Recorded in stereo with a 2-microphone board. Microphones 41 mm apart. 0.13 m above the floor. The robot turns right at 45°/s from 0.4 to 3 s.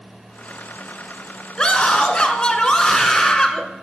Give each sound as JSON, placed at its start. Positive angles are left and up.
{"t": 1.6, "sound": "a scream", "side_deg": 25, "distance_m": 1.4}